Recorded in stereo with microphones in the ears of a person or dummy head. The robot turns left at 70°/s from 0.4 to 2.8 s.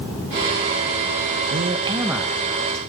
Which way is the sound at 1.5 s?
130° right.